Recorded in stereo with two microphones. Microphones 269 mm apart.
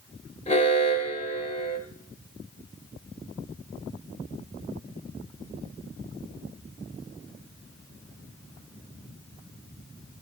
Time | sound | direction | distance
0.5 | an alarm | 25° left (ahead or behind) | 2 m